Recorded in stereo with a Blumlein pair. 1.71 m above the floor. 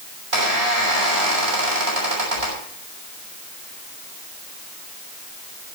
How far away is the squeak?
About 6 m.